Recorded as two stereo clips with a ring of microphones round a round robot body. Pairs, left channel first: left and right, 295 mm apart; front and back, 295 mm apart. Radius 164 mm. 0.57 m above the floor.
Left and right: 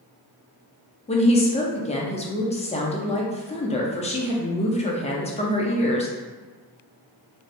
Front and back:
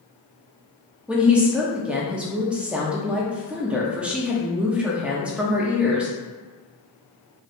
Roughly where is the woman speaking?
Left.